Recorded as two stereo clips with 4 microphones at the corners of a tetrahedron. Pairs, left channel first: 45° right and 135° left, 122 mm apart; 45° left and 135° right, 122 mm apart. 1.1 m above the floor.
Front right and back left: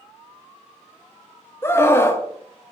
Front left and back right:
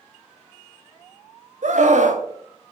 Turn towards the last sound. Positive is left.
turn(degrees=-115)